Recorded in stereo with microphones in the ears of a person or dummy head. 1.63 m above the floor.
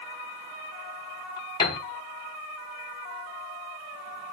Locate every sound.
1.6 s a piano: 25° left (ahead or behind), 3 m